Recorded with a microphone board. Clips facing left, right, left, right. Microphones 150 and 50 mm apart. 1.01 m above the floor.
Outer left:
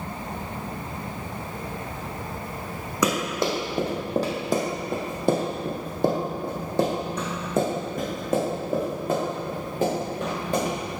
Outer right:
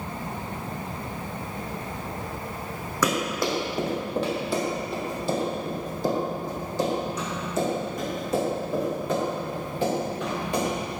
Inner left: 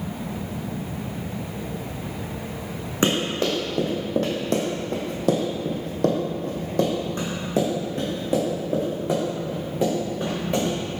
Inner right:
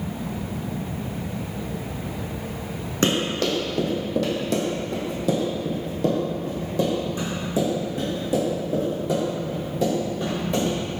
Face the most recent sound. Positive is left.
turn(degrees=45)  # may be behind; listen again after turning